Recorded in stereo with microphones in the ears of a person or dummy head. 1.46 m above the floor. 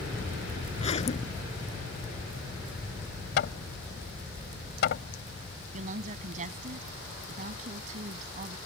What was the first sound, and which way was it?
A zipper, 35° left (ahead or behind).